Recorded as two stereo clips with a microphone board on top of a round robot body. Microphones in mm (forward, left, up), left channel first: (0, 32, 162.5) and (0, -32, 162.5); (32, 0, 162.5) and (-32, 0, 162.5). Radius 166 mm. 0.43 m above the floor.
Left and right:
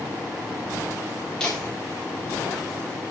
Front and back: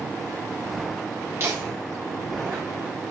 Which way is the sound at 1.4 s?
165° left.